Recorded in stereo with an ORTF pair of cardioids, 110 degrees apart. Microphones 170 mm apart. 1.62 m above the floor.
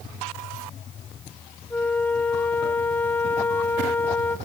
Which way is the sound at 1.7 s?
10° left.